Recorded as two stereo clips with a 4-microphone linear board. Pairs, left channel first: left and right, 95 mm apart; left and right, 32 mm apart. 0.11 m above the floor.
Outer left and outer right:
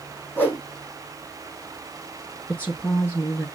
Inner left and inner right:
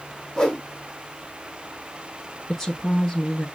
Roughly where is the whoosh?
Left.